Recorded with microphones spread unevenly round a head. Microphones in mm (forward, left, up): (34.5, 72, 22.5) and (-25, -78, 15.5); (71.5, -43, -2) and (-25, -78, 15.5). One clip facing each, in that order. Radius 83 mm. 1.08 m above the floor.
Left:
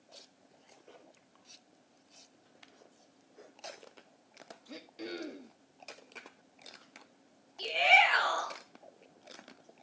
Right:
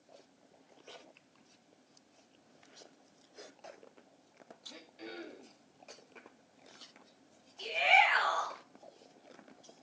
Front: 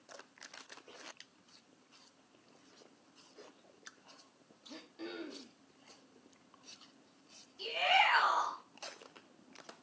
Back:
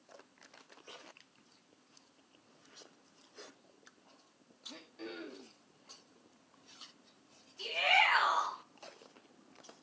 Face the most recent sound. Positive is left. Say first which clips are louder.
# left 1 dB, front 1 dB
turn(degrees=110)